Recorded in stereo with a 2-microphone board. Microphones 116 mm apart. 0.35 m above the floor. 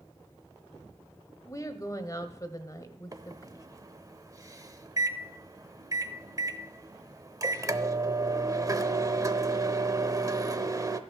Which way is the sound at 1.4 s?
30° left (ahead or behind).